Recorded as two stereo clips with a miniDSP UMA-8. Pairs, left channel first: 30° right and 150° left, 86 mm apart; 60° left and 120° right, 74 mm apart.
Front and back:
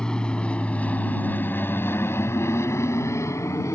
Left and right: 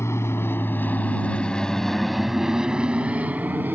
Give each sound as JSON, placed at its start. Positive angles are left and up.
{"t": 0.0, "sound": "an aircraft", "azimuth_deg": 45}